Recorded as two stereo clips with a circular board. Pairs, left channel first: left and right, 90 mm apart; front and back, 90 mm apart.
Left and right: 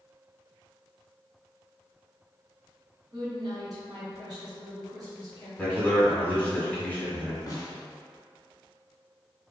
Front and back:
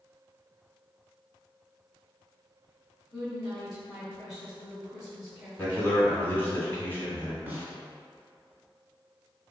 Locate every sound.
3.1 s a woman speaking: 95° right, 1.7 m
5.6 s a man speaking: 40° left, 1.2 m
7.5 s a snare drum: 125° left, 0.9 m